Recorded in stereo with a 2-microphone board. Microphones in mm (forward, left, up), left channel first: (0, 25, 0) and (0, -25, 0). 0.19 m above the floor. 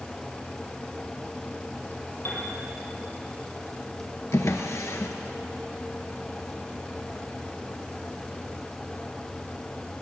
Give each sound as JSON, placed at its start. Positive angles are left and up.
{"t": 2.2, "sound": "a piano", "side_deg": 50, "distance_m": 3.5}
{"t": 4.3, "sound": "a drawer", "side_deg": 70, "distance_m": 1.3}